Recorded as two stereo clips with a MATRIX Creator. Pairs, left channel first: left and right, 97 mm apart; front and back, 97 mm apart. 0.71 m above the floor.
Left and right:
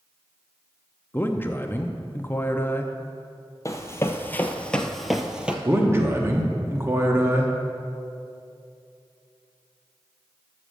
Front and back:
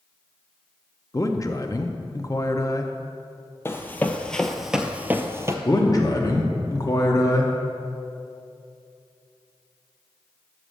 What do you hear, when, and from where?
1.1 s a man speaking: 35° left, 0.6 m
3.6 s running footsteps: 50° left, 0.9 m; by 5.5 s 160° right, 0.8 m
5.7 s a man speaking: 35° right, 1.1 m